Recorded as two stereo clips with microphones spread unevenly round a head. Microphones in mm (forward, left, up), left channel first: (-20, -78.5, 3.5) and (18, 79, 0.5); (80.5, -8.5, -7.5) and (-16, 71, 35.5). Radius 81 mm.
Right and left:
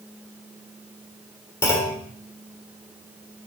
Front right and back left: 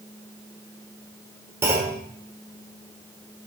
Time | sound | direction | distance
1.6 | a clunk | 175° right | 1.2 m